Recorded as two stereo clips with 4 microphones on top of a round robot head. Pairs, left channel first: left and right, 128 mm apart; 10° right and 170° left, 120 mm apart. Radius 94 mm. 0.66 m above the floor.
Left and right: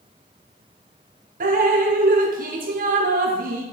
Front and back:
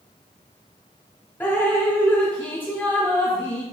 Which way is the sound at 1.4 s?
85° right.